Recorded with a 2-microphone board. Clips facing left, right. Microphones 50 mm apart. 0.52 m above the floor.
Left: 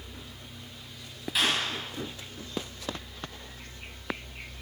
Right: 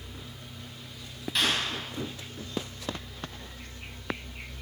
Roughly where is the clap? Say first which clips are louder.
Even; centre.